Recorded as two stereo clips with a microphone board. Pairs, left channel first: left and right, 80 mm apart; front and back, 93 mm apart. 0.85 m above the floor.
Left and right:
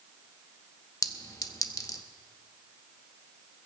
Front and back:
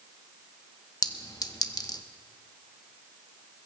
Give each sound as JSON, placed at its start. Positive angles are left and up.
{"t": 1.0, "sound": "a clink", "azimuth_deg": 45, "distance_m": 0.8}